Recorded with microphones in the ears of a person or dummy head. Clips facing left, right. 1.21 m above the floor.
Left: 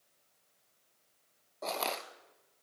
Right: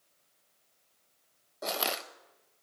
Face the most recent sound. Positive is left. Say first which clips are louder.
# right 1 dB
turn(degrees=-15)  # may be behind; listen again after turning